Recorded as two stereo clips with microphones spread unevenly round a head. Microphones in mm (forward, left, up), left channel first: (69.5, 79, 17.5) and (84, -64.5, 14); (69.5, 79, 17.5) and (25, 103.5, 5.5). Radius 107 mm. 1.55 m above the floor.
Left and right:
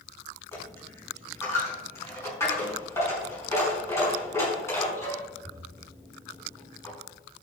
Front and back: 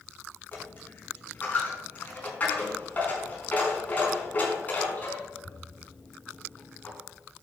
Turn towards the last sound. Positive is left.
turn(degrees=25)